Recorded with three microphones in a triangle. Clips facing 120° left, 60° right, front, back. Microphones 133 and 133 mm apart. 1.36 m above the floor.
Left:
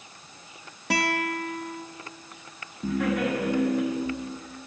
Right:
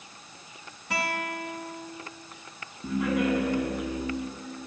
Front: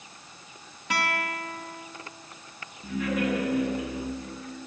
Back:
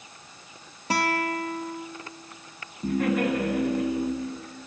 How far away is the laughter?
About 8.5 m.